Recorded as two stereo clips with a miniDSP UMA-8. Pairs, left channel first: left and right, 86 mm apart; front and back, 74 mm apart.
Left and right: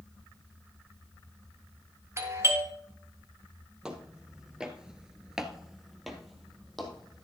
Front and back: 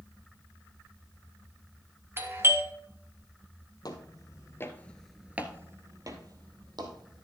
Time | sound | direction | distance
2.2 | a doorbell | 135° right | 1.5 m
3.8 | footsteps | 10° right | 1.9 m